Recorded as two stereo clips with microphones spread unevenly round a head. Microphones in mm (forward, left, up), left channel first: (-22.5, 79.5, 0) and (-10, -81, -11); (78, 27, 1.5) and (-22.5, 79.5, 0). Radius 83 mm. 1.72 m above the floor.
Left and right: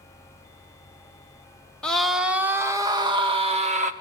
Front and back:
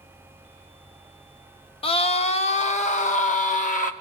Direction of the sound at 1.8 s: 10° left.